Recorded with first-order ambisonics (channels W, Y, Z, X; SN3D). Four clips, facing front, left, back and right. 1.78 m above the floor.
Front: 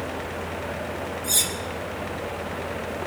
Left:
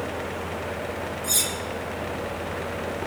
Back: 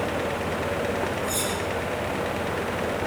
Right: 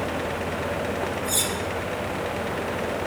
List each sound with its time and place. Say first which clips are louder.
1.2 s cutlery clinking: left 3 dB, front 2 dB; 60° left, 3.5 m